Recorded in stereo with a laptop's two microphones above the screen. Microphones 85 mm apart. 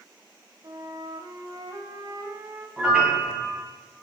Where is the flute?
55° right (ahead or behind), 2.5 m.